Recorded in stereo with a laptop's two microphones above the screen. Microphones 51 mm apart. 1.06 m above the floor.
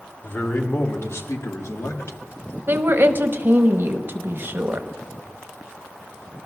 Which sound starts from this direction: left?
A man speaking, at 0.2 s.